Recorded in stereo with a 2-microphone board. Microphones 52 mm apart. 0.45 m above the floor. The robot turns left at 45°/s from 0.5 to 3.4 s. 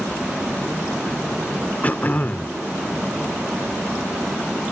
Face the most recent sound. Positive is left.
turn(degrees=55)